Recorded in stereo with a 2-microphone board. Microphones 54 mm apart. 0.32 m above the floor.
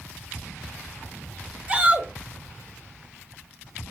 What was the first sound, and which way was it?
A shout, 20° right (ahead or behind).